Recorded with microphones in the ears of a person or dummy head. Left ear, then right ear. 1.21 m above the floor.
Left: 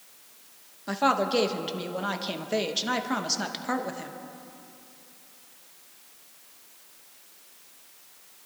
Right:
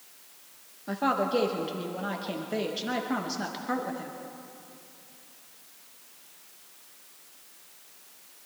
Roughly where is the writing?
I don't hear writing.